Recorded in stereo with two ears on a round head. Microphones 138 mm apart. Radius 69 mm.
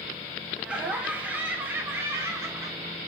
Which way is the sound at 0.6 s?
10° right (ahead or behind).